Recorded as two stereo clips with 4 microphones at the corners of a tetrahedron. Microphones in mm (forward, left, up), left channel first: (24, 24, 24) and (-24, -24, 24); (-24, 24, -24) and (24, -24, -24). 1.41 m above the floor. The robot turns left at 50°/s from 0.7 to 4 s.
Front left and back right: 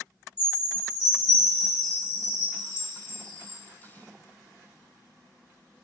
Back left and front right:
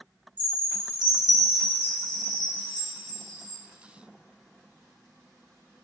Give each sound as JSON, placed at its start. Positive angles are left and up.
{"t": 0.4, "sound": "a chime", "azimuth_deg": -115, "distance_m": 1.3}